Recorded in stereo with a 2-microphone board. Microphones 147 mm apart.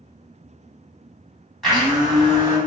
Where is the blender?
Centre (ahead or behind), 1.6 m.